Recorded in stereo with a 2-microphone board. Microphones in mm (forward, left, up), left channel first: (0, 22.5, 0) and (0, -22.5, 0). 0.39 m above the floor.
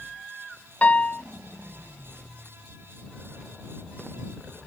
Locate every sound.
0.8 s a piano: 30° left (ahead or behind)